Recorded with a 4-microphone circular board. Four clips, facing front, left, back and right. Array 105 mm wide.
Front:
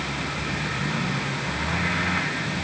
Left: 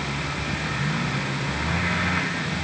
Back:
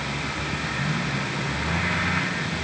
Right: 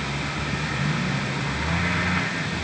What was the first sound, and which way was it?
Only background noise.